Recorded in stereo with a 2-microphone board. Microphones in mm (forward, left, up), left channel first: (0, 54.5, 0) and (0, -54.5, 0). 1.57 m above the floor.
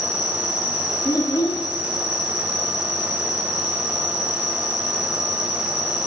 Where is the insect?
35° right (ahead or behind), 1.4 m.